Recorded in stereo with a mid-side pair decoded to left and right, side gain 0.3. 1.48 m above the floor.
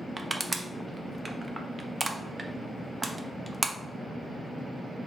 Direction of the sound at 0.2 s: 30° right.